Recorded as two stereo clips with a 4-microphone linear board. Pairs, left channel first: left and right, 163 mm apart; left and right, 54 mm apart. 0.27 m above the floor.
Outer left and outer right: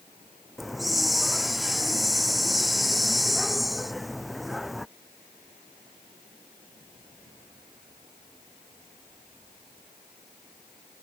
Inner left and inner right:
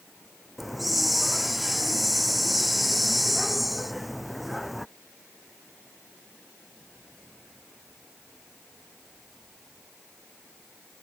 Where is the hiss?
Centre (ahead or behind).